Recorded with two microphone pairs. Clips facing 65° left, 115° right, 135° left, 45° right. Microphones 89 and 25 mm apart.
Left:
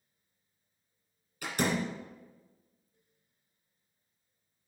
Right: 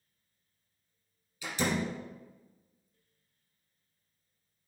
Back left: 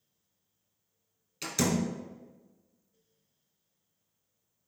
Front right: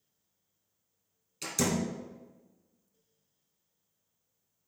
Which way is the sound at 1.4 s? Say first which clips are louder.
Left 1 dB, back left 1 dB; 75° left.